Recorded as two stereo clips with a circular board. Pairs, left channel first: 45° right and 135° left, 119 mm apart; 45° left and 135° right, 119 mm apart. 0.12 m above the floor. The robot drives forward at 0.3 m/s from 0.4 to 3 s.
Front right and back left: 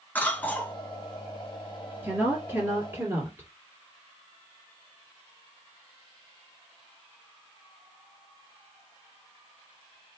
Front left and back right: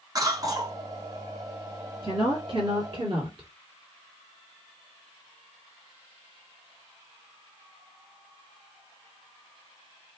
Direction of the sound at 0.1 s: 105° right.